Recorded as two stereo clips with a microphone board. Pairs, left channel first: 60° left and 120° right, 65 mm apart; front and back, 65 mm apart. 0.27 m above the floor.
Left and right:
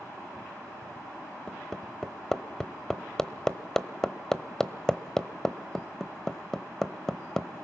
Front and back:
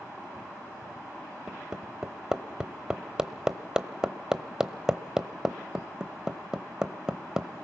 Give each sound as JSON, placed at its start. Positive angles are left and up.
{"t": 1.5, "sound": "hammering", "azimuth_deg": 125, "distance_m": 0.9}